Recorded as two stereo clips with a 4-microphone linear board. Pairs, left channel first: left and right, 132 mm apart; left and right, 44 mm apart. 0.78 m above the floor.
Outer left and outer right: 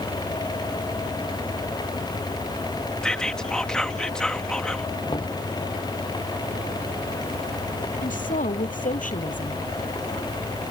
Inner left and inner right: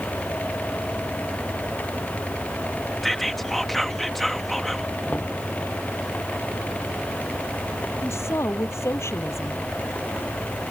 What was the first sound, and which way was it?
Whispering, 5° left (ahead or behind).